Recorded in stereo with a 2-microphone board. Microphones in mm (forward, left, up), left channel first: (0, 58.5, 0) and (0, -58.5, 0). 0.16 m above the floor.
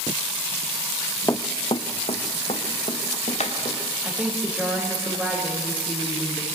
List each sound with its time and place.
1.3 s running footsteps: 25° left (ahead or behind), 0.6 m; by 3.8 s 70° left (ahead or behind), 3 m
4.0 s a woman speaking: 15° right (ahead or behind), 6.5 m